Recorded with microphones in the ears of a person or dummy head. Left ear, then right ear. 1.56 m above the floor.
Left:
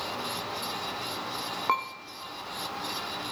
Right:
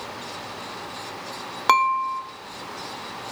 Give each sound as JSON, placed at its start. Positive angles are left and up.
{"t": 1.7, "sound": "dishes clattering", "side_deg": -65, "distance_m": 1.3}